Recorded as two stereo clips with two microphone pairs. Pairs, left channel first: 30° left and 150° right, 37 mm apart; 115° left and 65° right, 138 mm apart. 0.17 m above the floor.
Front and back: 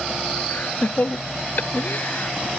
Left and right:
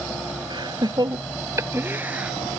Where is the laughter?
10° right; by 2.5 s 20° left.